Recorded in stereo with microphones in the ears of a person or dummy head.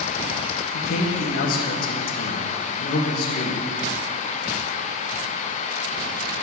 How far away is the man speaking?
About 1.3 m.